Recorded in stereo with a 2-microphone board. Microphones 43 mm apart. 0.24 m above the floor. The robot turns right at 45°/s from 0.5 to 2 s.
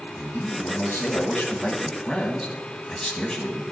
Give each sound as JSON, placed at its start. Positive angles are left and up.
{"t": 0.2, "sound": "a man speaking", "azimuth_deg": 80, "distance_m": 1.4}